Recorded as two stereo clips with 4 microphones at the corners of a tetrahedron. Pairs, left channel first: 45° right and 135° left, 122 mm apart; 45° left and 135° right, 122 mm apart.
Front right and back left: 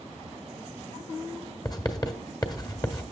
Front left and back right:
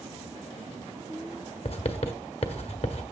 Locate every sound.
1.6 s writing: 10° left, 1.3 m